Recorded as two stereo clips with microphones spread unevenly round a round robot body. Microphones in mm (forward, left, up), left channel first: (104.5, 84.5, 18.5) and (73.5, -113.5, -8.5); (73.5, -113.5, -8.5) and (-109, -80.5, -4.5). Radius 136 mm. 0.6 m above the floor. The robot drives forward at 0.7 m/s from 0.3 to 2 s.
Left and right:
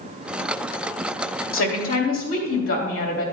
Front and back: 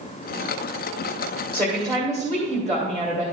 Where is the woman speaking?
95° left, 2.5 m; by 3.2 s 105° left, 2.5 m.